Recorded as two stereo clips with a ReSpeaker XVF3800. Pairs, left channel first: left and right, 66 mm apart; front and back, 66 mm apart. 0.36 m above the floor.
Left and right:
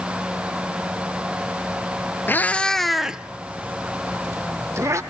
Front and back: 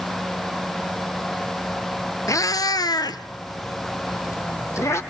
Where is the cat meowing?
30° left, 0.8 m; by 5.0 s 45° right, 1.8 m.